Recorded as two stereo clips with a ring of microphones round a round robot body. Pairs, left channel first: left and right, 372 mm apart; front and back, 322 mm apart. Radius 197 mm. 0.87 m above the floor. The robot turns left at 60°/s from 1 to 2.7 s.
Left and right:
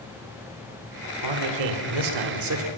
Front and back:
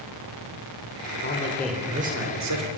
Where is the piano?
I don't hear a piano.